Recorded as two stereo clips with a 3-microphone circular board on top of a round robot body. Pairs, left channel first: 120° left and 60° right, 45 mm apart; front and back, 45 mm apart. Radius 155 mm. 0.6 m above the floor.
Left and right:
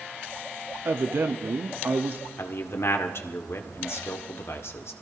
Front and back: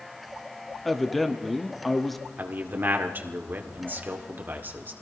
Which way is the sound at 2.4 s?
135° left.